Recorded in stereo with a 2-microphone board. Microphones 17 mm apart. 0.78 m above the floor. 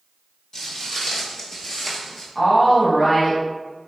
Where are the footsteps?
40° left (ahead or behind), 1.1 m; by 2.2 s 20° left (ahead or behind), 0.8 m.